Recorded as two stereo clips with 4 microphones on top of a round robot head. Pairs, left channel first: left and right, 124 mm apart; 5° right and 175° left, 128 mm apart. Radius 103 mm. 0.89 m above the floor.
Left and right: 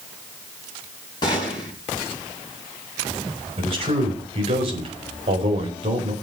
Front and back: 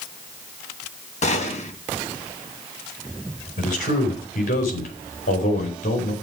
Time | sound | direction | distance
1.2 | a gunshot | 25° left | 3 m
3.6 | a man speaking | 40° right | 4.5 m